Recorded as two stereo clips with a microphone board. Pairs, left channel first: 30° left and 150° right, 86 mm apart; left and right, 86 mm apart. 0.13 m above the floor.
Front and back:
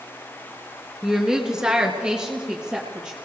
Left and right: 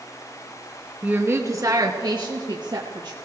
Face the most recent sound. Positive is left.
turn(degrees=-70)